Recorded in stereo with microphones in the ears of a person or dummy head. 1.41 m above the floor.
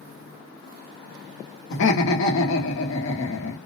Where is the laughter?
70° left (ahead or behind), 1.1 m.